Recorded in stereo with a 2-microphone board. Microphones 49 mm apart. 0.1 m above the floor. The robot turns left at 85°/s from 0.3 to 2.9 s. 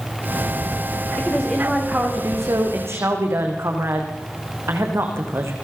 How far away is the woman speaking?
About 6 m.